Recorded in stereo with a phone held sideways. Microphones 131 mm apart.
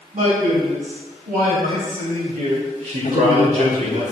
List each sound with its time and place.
0.1 s a man speaking: 80° right, 3.5 m; by 4.0 s 65° right (ahead or behind), 2.5 m
3.0 s a man speaking: 70° left (ahead or behind), 1.5 m